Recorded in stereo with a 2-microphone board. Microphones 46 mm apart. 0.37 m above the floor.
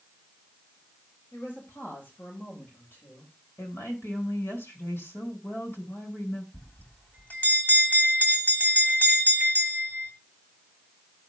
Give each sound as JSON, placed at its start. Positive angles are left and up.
{"t": 1.3, "sound": "a woman speaking", "side_deg": 55, "distance_m": 8.5}
{"t": 3.6, "sound": "a woman speaking", "side_deg": 70, "distance_m": 4.5}
{"t": 6.5, "sound": "a bell", "side_deg": 45, "distance_m": 3.0}